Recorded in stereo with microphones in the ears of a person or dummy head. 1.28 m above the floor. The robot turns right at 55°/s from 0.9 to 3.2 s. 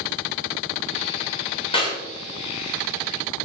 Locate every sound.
1.7 s a clap: 30° left (ahead or behind), 7.5 m; by 2.0 s 15° left (ahead or behind), 7.5 m